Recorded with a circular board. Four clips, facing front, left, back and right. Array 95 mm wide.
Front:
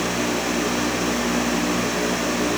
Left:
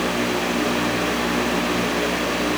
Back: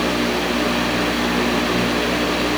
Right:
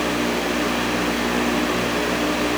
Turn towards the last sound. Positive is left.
No sound to turn to.